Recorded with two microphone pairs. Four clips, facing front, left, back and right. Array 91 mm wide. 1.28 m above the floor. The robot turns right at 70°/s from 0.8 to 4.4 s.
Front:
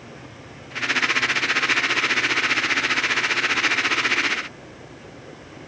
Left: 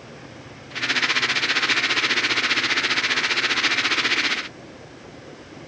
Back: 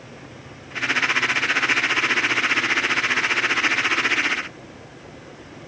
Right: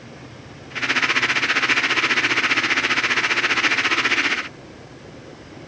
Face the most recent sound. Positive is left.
No sound to turn to.